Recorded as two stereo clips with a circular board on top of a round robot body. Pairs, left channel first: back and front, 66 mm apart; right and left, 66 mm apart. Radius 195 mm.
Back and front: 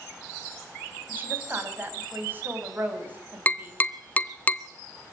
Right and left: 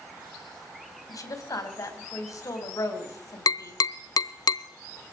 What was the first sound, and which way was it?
A woman speaking, 60° right.